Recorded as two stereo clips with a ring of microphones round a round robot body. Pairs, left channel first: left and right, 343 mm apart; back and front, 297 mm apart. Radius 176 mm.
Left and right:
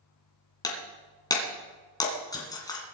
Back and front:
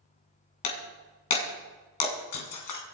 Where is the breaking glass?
170° left, 2.5 m.